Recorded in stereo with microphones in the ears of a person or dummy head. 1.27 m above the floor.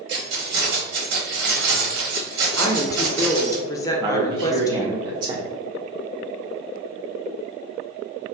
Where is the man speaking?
25° right (ahead or behind), 0.6 m.